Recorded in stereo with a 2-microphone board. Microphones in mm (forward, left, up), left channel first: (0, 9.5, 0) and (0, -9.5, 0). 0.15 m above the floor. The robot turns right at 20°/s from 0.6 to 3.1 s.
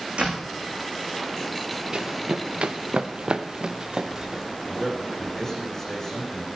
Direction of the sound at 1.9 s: 45° right (ahead or behind).